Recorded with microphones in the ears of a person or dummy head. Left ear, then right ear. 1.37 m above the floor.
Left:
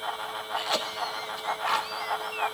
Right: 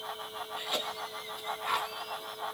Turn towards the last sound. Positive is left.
turn(degrees=35)  # may be behind; listen again after turning